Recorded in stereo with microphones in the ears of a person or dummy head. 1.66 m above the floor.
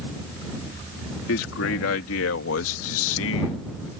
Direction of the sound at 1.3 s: 80° left.